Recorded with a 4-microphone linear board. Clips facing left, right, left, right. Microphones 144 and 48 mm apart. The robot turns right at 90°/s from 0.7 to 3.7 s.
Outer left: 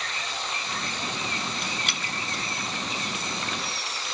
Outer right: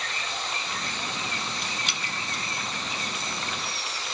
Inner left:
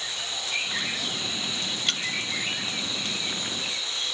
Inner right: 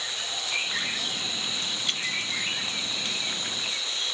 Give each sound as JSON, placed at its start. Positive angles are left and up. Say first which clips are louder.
{"t": 1.9, "sound": "dripping", "louder": "outer left 1 dB, inner left 2 dB", "side_deg": 60, "distance_m": 1.8}